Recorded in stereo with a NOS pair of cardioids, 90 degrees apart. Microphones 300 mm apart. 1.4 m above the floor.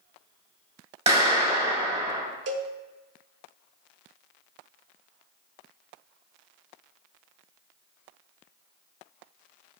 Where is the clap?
20° right, 4 m.